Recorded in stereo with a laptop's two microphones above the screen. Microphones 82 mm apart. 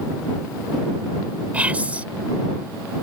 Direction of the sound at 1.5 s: 15° right (ahead or behind).